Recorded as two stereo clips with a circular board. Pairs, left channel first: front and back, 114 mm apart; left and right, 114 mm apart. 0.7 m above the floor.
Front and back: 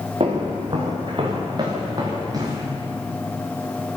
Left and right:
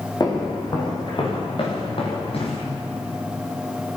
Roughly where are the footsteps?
Behind left.